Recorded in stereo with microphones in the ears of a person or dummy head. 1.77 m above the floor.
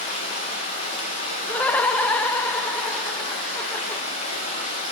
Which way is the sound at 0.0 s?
40° left (ahead or behind).